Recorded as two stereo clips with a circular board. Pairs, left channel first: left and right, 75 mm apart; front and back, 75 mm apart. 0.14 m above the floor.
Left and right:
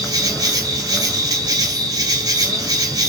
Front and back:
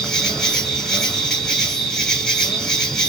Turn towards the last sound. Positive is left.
turn(degrees=-85)